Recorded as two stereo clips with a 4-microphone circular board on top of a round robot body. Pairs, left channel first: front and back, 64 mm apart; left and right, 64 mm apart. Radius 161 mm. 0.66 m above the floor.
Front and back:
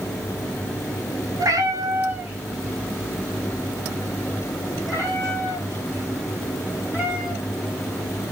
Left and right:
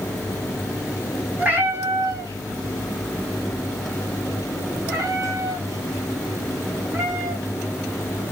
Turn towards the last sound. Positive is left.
turn(degrees=-45)